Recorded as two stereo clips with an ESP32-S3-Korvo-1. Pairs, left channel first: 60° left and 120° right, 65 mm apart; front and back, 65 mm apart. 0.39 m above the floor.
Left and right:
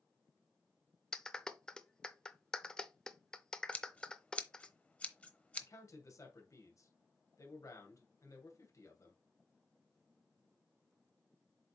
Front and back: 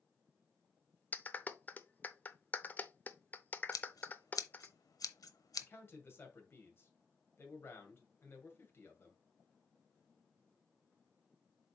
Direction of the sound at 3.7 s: 10° right.